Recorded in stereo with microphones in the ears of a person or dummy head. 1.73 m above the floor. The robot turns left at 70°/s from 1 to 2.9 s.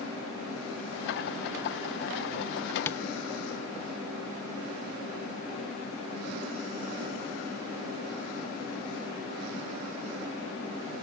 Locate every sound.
2.9 s tapping: 15° left (ahead or behind), 0.5 m; by 3.1 s 10° left (ahead or behind), 0.5 m